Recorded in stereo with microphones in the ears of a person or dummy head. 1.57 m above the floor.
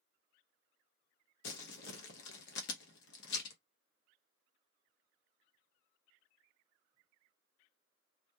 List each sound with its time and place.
1.4 s crumpling: 65° left (ahead or behind), 0.9 m